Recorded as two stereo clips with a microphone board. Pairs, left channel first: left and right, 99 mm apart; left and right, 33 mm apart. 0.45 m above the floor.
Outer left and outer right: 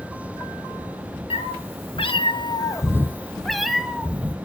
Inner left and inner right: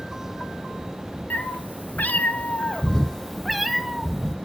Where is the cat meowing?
80° left, 0.9 m; by 4.3 s 15° right (ahead or behind), 1.1 m.